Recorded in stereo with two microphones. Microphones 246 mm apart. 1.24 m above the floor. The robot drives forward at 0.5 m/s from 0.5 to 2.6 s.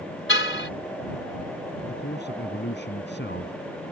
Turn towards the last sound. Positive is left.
turn(degrees=50)  # may be behind; listen again after turning